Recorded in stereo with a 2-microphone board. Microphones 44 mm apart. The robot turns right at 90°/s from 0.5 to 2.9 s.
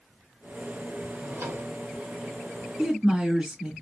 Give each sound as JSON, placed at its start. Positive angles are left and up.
{"t": 1.1, "sound": "a drawer", "azimuth_deg": -115, "distance_m": 1.0}
{"t": 2.8, "sound": "a woman speaking", "side_deg": -25, "distance_m": 1.4}